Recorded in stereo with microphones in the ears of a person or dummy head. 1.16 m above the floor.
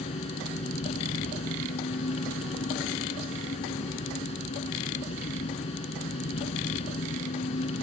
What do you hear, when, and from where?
0.0 s an engine running: 35° left (ahead or behind)